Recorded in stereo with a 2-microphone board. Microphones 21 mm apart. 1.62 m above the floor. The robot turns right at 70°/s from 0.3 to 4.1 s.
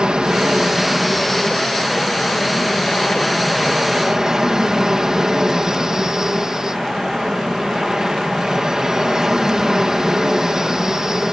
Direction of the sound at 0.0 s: 60° right.